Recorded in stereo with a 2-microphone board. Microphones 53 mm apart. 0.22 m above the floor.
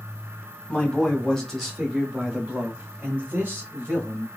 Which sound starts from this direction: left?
A man speaking, at 0.7 s.